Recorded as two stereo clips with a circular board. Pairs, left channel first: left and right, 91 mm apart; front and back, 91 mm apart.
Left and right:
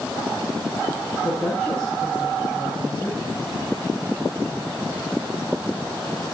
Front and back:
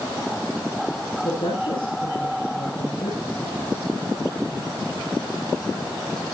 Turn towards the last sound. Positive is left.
turn(degrees=-5)